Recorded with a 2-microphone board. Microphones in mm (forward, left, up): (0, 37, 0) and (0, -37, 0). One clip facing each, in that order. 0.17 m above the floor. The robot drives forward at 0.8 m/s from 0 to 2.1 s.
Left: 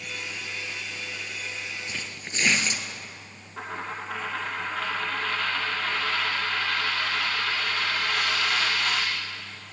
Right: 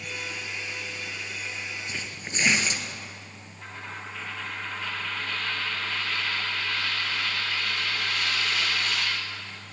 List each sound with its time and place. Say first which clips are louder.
1.9 s tearing paper: right 1 dB; 10° right (ahead or behind), 2.5 m; by 2.8 s 15° right (ahead or behind), 2.5 m
3.6 s a dropped coin: left 6 dB; 80° left, 3.5 m